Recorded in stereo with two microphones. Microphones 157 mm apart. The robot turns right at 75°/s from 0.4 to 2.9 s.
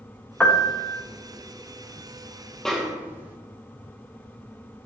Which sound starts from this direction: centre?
A snare drum, at 2.6 s.